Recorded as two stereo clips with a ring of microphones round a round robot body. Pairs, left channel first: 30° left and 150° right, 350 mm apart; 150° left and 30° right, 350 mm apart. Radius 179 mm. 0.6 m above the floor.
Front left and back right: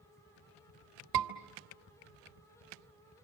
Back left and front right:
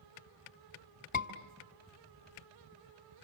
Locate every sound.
1.1 s a scream: 145° right, 1.7 m